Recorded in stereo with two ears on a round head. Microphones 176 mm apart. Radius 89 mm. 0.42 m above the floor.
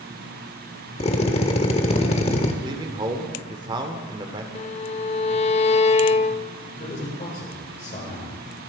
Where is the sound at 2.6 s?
25° right (ahead or behind), 1.5 m.